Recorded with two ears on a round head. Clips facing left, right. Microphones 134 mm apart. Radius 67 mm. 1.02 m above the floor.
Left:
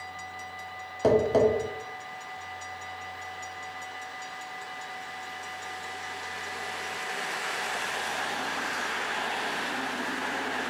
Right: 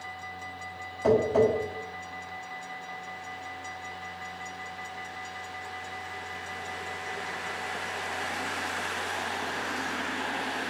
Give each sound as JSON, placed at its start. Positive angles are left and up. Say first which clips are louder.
{"t": 1.0, "sound": "tapping", "louder": "left 1 dB", "side_deg": 45, "distance_m": 1.2}